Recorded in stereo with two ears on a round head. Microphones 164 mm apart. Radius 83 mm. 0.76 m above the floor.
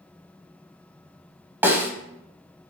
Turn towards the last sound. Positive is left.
turn(degrees=-10)  # may be behind; listen again after turning